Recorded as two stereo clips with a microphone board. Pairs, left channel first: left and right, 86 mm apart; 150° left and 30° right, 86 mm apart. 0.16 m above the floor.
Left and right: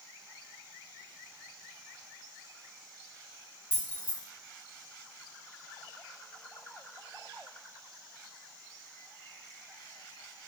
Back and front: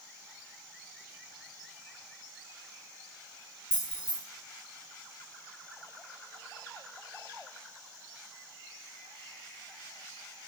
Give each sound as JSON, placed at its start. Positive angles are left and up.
{"t": 3.7, "sound": "keys jangling", "azimuth_deg": -30, "distance_m": 1.5}